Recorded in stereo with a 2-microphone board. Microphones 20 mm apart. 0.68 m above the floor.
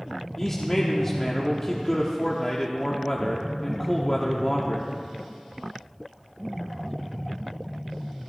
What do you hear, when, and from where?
0.4 s a man speaking: 25° left (ahead or behind), 1.1 m